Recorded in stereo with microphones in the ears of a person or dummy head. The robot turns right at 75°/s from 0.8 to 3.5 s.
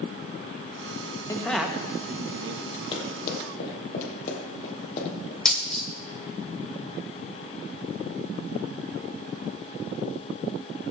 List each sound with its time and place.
1.3 s a man speaking: 15° left (ahead or behind), 1.5 m; by 2.6 s 85° right, 1.5 m
2.9 s running footsteps: 35° left (ahead or behind), 3 m; by 5.3 s 45° left (ahead or behind), 3 m
5.5 s a dropped coin: 10° left (ahead or behind), 2 m